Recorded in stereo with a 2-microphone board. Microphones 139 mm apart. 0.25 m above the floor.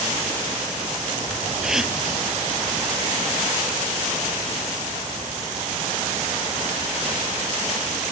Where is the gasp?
5° right (ahead or behind).